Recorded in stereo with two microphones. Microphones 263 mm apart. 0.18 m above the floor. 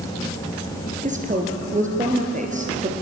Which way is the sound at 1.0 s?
30° right (ahead or behind).